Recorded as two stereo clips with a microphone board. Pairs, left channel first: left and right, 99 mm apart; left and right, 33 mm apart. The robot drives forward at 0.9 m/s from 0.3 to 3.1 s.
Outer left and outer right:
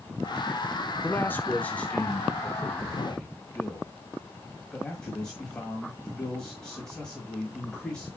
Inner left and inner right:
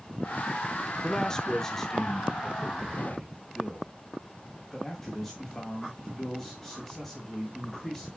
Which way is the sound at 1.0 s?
20° left (ahead or behind).